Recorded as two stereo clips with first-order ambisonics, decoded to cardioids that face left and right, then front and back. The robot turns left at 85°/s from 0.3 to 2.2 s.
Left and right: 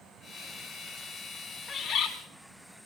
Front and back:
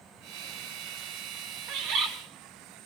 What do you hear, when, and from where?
1.7 s a bird: 165° left, 2 m; by 2.1 s 130° left, 2 m